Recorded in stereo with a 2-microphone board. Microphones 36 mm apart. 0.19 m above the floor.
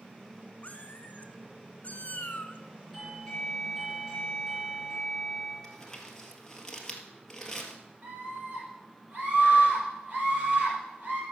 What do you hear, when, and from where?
0.6 s a cat meowing: 40° left (ahead or behind), 1.1 m
2.9 s a doorbell: centre (ahead or behind), 3 m
5.6 s crumpling: 15° left (ahead or behind), 1.6 m
8.0 s a scream: 35° right (ahead or behind), 5 m